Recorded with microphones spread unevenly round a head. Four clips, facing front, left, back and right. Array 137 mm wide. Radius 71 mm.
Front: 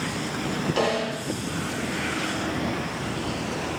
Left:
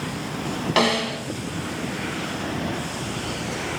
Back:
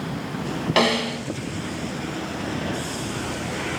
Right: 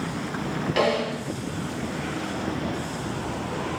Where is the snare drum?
155° left, 1.9 m.